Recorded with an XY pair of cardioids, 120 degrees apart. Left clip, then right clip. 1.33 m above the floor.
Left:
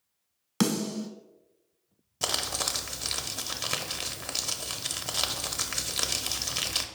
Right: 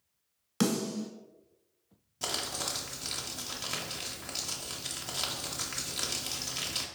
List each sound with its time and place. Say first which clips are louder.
0.6 s a snare drum: left 2 dB; 25° left, 0.8 m
2.2 s crumpling: left 5 dB; 40° left, 0.5 m